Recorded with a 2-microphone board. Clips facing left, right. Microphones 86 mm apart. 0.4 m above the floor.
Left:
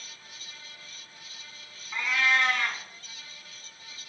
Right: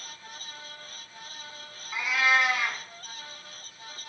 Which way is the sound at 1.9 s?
10° right (ahead or behind).